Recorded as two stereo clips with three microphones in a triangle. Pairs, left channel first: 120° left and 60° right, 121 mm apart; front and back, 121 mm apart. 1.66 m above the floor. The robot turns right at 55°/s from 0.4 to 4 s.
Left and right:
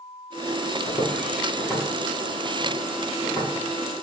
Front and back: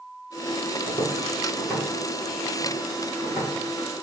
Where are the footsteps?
175° left, 1.7 m; by 3.5 s 170° left, 1.9 m.